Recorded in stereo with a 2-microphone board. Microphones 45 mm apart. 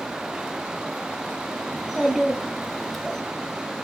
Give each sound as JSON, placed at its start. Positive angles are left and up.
{"t": 1.7, "sound": "a child speaking", "side_deg": -10, "distance_m": 0.7}